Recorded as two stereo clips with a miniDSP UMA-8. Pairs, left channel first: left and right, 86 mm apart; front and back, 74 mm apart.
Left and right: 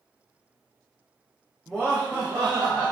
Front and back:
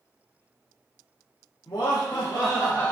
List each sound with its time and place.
1.7 s laughter: 10° left, 0.6 m; by 2.9 s 70° right, 0.7 m